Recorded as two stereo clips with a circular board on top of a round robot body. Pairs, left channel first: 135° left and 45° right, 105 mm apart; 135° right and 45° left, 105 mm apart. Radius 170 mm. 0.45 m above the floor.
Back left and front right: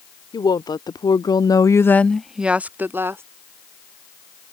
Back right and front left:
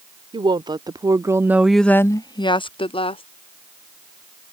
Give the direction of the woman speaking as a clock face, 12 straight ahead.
9 o'clock.